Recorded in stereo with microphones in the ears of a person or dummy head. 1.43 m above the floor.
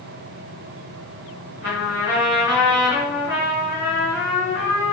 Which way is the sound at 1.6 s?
25° right (ahead or behind).